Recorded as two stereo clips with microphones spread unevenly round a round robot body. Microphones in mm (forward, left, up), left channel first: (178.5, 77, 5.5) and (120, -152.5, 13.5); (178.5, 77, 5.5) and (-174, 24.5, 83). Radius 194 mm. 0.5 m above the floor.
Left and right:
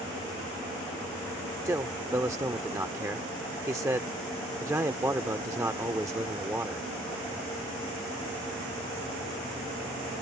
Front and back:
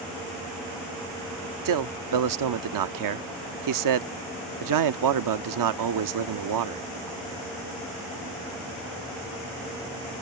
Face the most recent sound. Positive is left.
turn(degrees=180)